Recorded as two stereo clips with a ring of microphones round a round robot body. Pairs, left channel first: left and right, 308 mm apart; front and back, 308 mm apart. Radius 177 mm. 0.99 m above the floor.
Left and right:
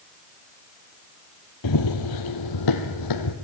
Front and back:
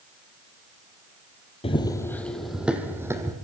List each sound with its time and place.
1.6 s running footsteps: 70° left, 1.7 m; by 3.3 s 100° left, 3 m